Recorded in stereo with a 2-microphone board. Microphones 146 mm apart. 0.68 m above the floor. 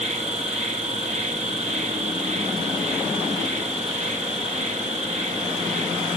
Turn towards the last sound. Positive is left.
turn(degrees=-55)  # may be behind; listen again after turning